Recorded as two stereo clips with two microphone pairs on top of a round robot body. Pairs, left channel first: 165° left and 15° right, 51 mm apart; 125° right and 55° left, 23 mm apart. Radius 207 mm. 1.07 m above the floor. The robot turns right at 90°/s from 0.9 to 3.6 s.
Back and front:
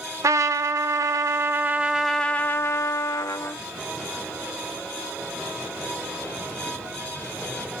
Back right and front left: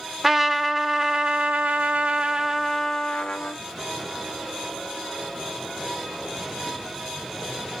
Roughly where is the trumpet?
Ahead right.